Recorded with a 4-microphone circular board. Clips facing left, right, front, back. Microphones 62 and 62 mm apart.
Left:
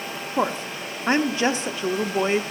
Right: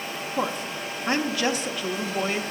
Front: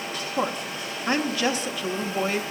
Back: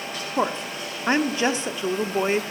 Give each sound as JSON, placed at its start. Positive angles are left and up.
{"t": 0.4, "sound": "a woman speaking", "azimuth_deg": 135, "distance_m": 0.8}